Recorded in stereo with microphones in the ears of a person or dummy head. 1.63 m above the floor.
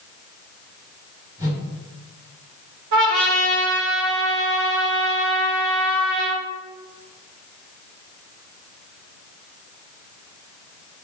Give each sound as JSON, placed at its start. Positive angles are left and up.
{"t": 1.4, "sound": "a whoosh", "side_deg": -20, "distance_m": 1.9}
{"t": 2.9, "sound": "a trumpet", "side_deg": -60, "distance_m": 1.0}